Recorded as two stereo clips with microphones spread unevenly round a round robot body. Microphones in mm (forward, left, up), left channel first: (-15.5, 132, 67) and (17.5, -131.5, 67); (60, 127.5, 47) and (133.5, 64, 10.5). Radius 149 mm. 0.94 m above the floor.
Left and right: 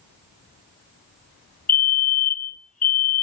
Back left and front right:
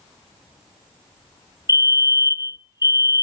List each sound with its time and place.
1.7 s a fire alarm: 85° left, 1.3 m